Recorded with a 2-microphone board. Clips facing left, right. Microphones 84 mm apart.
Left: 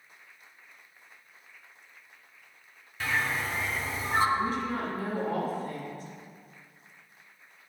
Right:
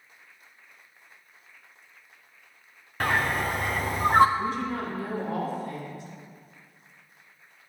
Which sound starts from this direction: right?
A bird, at 3.0 s.